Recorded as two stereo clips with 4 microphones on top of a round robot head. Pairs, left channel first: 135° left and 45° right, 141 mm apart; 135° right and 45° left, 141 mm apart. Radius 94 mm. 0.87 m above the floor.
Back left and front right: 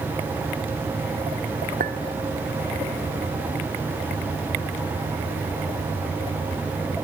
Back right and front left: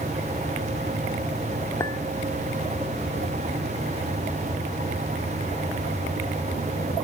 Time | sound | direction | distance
1.8 | a clink | 65° right | 2 m